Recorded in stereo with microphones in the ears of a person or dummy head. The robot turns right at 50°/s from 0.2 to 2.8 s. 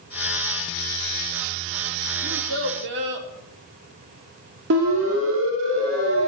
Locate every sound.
2.2 s a child speaking: 80° right, 3.5 m; by 3.3 s 65° right (ahead or behind), 3.5 m
4.7 s a siren: 75° right (ahead or behind), 5.5 m